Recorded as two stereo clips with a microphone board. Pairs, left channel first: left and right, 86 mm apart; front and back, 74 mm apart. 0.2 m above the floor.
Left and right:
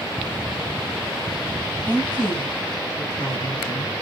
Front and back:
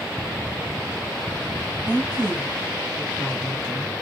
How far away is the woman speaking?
About 1.7 m.